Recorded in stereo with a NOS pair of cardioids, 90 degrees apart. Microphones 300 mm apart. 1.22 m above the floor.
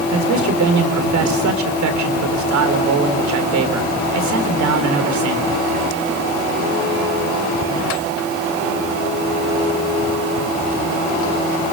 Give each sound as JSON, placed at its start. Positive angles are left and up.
{"t": 0.1, "sound": "a man speaking", "azimuth_deg": -70, "distance_m": 4.0}